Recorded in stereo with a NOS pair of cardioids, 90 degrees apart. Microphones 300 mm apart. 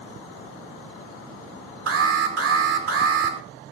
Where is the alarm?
50° right, 2.5 m.